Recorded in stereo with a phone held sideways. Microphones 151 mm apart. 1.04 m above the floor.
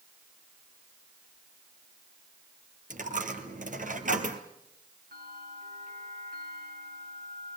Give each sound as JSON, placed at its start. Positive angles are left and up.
{"t": 2.9, "sound": "a dropped coin", "side_deg": -60, "distance_m": 2.5}
{"t": 5.1, "sound": "a bell", "side_deg": -80, "distance_m": 7.0}